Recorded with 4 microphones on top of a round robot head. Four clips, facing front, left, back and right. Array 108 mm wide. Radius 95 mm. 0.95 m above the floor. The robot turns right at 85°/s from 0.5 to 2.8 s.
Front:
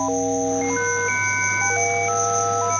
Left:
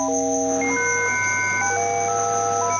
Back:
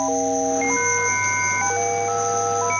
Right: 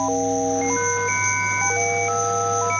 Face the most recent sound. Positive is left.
turn(degrees=40)